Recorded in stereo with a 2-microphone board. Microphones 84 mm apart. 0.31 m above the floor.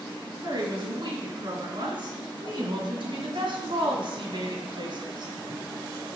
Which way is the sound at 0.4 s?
55° right (ahead or behind).